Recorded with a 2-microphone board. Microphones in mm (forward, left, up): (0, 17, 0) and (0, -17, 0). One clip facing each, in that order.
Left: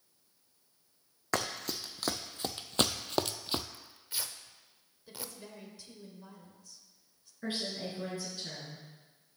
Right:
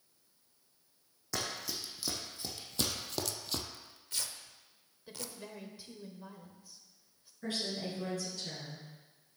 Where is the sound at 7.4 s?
25° left (ahead or behind), 4.5 m.